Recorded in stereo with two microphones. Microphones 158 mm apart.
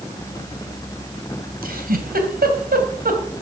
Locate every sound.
1.6 s a giggle: 70° right (ahead or behind), 3 m